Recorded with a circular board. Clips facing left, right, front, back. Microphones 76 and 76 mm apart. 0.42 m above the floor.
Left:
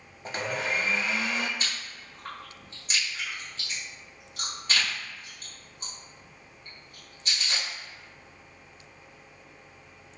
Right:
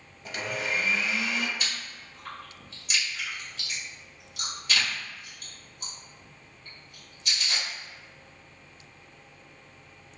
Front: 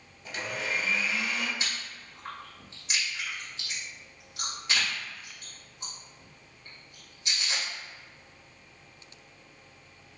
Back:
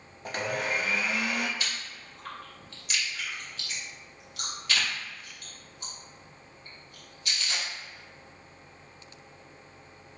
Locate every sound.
0.2 s a blender: 140° left, 0.5 m
1.6 s chewing: 55° left, 1.8 m